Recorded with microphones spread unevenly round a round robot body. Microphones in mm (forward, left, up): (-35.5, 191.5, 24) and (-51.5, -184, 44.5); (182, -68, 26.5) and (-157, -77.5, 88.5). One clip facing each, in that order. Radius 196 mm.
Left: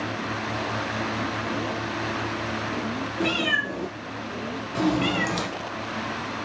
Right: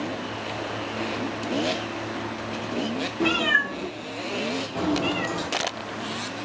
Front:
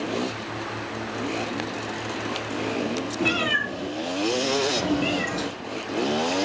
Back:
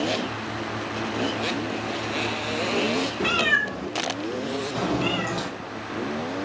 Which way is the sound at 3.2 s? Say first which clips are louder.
Right 1 dB, front 1 dB; 175° left.